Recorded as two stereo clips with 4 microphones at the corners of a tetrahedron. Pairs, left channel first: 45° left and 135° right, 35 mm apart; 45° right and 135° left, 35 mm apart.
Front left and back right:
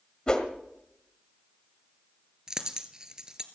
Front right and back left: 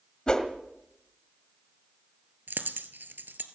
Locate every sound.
0.3 s a whoosh: straight ahead, 1.6 m
2.5 s a dropped coin: 155° left, 1.3 m